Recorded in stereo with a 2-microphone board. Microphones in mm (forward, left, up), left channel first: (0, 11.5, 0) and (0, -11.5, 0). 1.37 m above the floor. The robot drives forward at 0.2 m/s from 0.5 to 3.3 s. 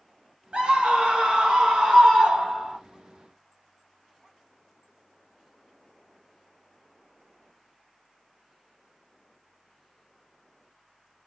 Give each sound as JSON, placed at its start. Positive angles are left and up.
{"t": 0.5, "sound": "a scream", "side_deg": -60, "distance_m": 1.7}